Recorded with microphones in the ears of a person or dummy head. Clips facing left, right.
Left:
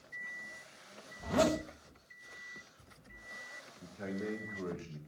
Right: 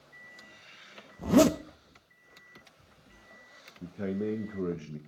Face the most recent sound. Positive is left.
turn(degrees=-40)  # may be behind; listen again after turning